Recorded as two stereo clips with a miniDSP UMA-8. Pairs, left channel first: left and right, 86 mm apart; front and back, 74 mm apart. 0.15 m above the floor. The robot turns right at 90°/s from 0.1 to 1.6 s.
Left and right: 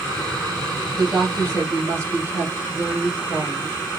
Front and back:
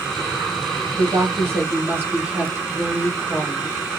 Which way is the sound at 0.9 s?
170° left.